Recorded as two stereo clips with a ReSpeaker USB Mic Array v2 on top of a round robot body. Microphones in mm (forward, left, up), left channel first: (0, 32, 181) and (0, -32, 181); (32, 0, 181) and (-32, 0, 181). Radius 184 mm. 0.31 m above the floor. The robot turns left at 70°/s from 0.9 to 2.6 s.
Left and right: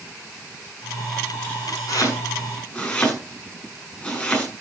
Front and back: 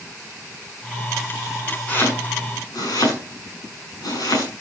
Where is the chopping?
70° left, 6.5 m; by 4.5 s 20° left, 6.5 m.